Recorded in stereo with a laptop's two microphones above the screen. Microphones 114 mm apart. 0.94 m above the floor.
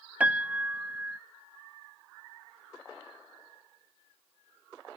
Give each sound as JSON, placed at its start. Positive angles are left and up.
{"t": 0.2, "sound": "a piano", "side_deg": -15}